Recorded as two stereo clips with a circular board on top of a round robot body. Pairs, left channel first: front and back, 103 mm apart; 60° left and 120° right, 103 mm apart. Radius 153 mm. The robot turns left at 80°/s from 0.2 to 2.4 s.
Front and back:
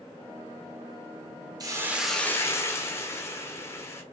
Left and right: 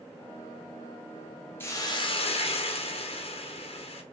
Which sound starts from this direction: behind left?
A hiss, at 1.6 s.